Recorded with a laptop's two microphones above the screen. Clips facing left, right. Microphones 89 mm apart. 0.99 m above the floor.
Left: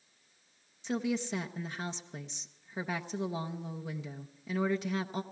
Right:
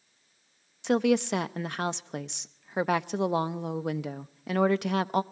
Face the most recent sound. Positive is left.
turn(degrees=-70)  # may be behind; listen again after turning